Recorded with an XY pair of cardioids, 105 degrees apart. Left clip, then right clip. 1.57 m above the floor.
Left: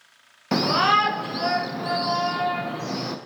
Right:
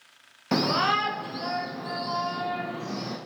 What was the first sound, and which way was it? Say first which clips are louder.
A shout: left 5 dB; 10° left.